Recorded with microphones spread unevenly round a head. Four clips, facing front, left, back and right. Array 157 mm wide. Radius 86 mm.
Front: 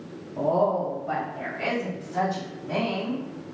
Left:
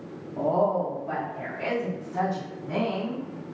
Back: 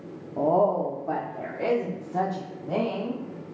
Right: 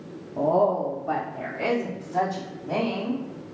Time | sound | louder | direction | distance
0.4 | a woman speaking | right 2 dB, back 1 dB | 160° left | 0.6 m